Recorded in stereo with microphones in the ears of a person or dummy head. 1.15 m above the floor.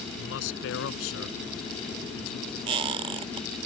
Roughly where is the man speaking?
Left.